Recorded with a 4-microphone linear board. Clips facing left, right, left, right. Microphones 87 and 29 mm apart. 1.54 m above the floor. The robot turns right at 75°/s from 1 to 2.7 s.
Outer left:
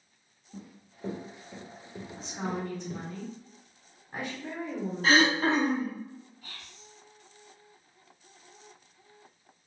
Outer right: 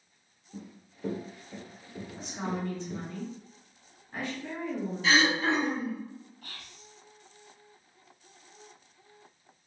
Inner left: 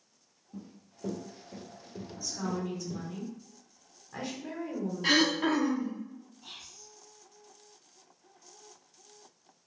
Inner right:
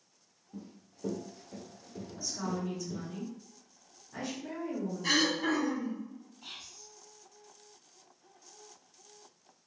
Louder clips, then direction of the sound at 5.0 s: Outer left 2 dB, inner left 3 dB; 45° left (ahead or behind).